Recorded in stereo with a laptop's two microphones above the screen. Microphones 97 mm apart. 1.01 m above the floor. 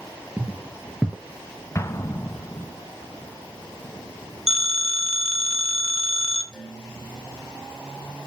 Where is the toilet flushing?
I don't hear a toilet flushing.